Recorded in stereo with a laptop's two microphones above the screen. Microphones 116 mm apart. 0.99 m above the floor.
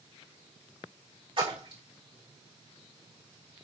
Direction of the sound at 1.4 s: 50° right (ahead or behind).